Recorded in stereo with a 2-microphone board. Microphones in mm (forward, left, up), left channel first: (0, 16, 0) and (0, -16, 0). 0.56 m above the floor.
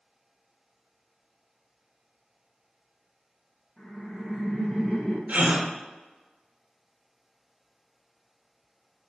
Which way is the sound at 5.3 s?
55° right (ahead or behind).